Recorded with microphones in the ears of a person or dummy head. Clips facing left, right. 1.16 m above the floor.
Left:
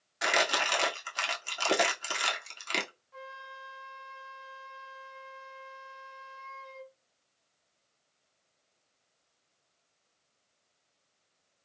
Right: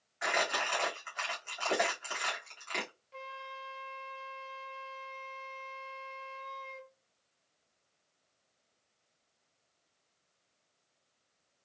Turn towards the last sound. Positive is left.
turn(degrees=-35)  # may be behind; listen again after turning